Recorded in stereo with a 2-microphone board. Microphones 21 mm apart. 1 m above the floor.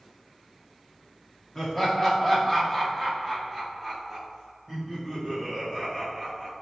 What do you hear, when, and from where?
1.6 s laughter: 25° left (ahead or behind), 1.0 m; by 6.5 s 5° right (ahead or behind), 2 m